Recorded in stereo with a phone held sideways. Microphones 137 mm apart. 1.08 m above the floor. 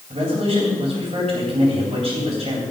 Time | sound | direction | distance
0.1 | a man speaking | 50° right (ahead or behind) | 3.5 m